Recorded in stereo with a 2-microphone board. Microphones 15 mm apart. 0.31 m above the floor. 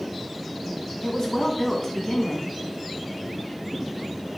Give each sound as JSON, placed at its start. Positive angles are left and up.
{"t": 1.0, "sound": "a woman speaking", "side_deg": 35, "distance_m": 2.5}